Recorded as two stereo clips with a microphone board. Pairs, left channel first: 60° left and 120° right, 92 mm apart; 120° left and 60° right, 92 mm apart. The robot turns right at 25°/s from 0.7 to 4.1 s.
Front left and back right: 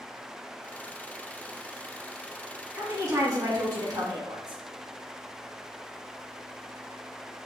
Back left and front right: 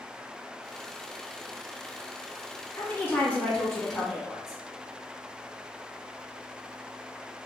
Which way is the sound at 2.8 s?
Straight behind.